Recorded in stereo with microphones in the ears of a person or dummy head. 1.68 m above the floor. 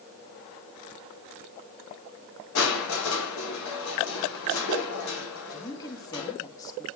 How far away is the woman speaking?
About 3 m.